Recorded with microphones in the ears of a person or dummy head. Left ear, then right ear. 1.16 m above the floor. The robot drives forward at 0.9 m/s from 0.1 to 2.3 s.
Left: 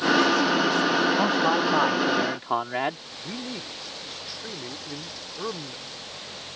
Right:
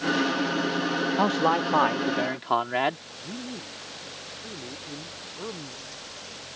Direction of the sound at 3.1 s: 75° left (ahead or behind).